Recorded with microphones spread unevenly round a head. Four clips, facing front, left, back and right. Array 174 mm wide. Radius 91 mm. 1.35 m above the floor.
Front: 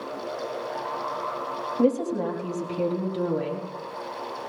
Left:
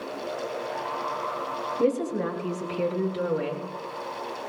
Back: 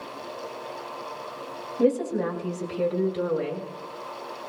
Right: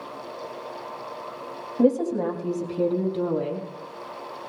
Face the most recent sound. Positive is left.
turn(degrees=-55)